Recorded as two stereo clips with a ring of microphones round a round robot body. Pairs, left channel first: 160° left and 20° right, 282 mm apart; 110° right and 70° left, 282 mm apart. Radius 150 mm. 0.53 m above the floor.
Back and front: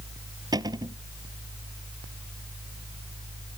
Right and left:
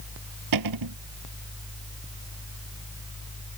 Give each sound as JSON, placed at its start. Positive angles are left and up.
{"t": 0.5, "sound": "a cupboard door", "azimuth_deg": 55}